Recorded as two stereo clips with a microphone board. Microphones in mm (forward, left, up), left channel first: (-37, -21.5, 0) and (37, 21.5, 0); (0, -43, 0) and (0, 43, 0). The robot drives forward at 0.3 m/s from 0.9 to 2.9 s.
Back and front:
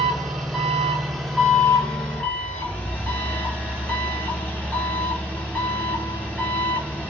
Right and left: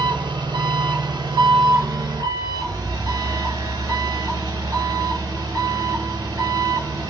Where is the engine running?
115° left, 1.1 m; by 7.1 s 140° left, 1.5 m.